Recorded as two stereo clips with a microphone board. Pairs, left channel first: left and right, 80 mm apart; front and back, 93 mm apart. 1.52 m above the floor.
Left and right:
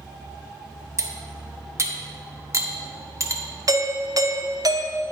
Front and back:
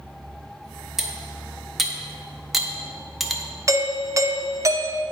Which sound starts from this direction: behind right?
A doorbell, at 3.7 s.